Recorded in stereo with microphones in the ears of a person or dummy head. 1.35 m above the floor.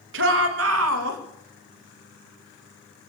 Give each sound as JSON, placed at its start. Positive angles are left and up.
{"t": 0.1, "sound": "a shout", "side_deg": -70, "distance_m": 1.5}